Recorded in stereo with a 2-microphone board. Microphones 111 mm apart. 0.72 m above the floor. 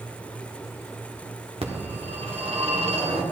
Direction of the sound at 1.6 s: 60° right (ahead or behind).